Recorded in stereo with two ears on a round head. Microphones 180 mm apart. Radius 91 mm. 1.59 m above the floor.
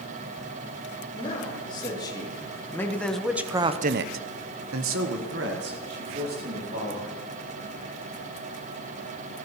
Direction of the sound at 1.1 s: 25° left (ahead or behind).